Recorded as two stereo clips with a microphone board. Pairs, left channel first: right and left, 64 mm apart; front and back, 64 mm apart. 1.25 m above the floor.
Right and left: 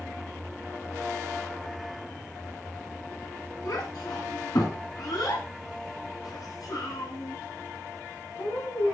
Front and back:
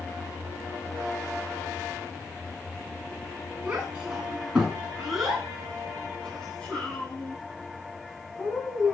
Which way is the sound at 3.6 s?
105° right.